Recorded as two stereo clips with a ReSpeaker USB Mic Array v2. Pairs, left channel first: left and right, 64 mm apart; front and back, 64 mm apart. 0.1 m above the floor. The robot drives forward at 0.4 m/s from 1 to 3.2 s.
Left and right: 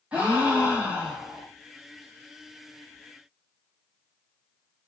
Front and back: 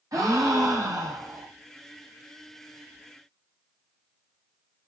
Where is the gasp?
160° right, 1.1 m; by 1.5 s 165° right, 1.3 m.